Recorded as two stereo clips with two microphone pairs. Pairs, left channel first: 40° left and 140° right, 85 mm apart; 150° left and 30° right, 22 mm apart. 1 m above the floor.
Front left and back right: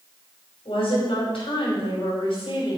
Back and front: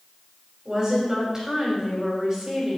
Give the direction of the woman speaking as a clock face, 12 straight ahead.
10 o'clock.